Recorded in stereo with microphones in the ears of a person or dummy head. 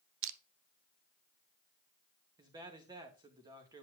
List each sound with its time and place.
0.2 s crushing: 70° right (ahead or behind), 0.7 m
2.4 s a man speaking: 20° right (ahead or behind), 1.7 m